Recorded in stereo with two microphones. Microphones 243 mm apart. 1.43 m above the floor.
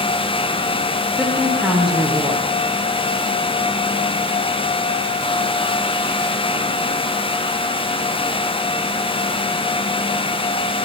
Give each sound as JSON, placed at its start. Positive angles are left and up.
{"t": 1.2, "sound": "a woman speaking", "side_deg": 0, "distance_m": 1.1}